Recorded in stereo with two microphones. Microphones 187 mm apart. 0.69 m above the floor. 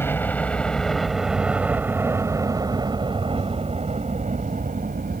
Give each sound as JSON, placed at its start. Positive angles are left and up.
{"t": 0.0, "sound": "a helicopter", "side_deg": 10}